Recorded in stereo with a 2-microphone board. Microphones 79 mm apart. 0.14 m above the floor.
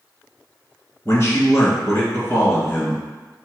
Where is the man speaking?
35° left (ahead or behind), 1.3 m.